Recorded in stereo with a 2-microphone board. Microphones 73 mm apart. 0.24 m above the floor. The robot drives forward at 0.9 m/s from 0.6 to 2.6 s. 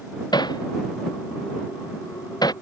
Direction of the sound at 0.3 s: 70° left (ahead or behind).